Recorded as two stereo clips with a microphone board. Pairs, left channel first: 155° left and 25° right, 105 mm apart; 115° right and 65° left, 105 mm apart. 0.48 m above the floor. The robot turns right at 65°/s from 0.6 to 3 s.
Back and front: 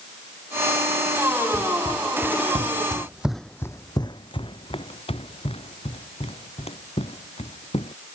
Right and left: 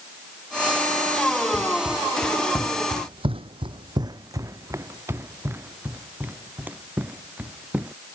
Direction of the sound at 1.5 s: 105° right.